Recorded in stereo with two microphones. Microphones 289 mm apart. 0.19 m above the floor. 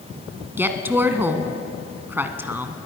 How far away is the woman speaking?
About 1.6 m.